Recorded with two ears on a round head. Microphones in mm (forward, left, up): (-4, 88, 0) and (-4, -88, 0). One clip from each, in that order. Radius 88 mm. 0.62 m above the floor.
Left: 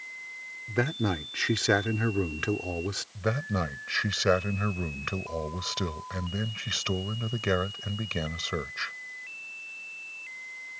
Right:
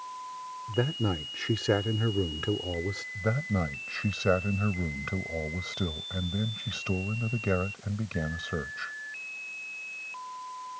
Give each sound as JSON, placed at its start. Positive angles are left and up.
{"t": 0.7, "sound": "a man speaking", "side_deg": 55}
{"t": 3.1, "sound": "a man speaking", "side_deg": 55}